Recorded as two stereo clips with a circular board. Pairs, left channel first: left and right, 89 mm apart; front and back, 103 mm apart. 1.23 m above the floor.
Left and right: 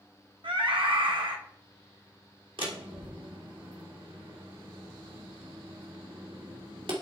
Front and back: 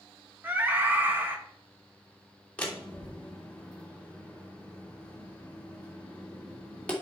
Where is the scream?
110° right, 1.7 m.